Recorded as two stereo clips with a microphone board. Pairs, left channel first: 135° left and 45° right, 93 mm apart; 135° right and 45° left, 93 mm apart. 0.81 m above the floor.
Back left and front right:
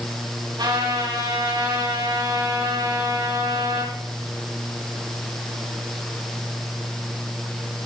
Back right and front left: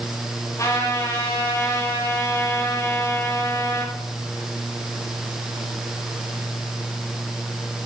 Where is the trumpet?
80° right, 6 m.